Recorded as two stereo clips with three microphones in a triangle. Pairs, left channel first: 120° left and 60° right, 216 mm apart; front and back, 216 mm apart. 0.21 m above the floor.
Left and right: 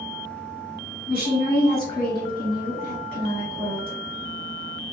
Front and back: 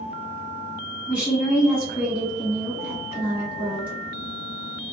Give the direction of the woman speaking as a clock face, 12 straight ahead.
9 o'clock.